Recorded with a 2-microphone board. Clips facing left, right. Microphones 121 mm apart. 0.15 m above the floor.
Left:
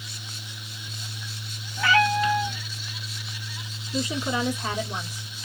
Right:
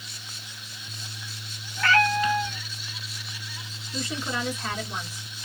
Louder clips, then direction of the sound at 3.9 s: Left 4 dB; 15° left (ahead or behind).